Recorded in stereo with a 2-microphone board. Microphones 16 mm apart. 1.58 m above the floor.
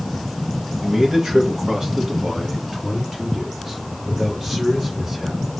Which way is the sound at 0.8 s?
50° right (ahead or behind).